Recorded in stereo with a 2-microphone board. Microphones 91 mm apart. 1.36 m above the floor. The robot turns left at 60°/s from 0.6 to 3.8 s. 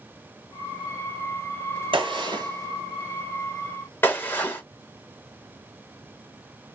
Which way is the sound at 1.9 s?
80° right.